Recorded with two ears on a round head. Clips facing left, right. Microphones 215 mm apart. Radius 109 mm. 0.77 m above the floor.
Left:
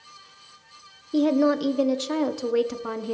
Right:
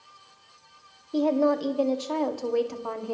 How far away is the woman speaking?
About 1.5 m.